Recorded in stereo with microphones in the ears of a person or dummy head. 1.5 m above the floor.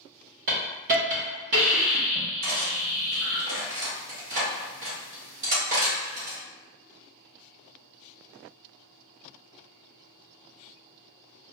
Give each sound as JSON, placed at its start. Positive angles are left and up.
{"t": 0.5, "sound": "a hiss", "side_deg": -50, "distance_m": 0.9}
{"t": 2.4, "sound": "cutlery clinking", "side_deg": -50, "distance_m": 1.3}